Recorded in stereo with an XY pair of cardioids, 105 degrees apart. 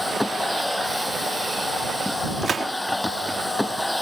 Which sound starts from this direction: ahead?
A machine running, at 0.0 s.